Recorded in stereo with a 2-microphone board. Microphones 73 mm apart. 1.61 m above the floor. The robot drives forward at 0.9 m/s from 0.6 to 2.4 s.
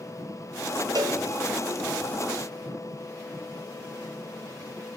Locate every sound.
0.9 s a cowbell: 60° right (ahead or behind), 1.0 m